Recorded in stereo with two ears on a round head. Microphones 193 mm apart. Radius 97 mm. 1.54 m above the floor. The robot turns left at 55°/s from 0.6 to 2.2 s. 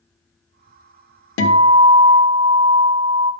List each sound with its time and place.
1.4 s a guitar: 115° left, 1.1 m; by 3.3 s 70° left, 1.1 m